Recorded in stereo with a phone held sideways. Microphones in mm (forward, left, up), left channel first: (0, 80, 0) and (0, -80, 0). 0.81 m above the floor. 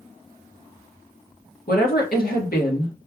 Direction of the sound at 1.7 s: 70° left (ahead or behind).